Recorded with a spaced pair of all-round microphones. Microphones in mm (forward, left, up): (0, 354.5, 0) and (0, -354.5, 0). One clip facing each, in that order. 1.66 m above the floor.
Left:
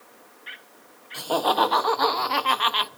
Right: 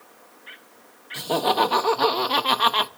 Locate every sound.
1.1 s laughter: 50° right (ahead or behind), 1.8 m; by 2.9 s 70° right (ahead or behind), 1.0 m